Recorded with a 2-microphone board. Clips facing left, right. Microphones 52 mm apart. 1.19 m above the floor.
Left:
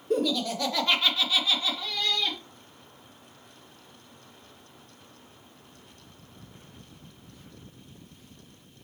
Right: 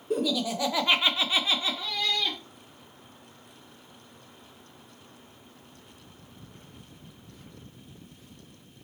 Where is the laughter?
5° right (ahead or behind), 1.1 m; by 2.4 s 15° right (ahead or behind), 1.0 m.